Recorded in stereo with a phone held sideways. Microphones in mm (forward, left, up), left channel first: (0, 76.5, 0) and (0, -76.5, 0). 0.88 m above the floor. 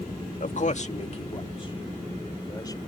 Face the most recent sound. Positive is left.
turn(degrees=25)  # may be behind; listen again after turning